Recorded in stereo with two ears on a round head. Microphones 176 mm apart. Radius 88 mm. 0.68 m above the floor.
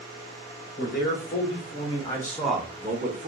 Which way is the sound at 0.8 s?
55° left (ahead or behind).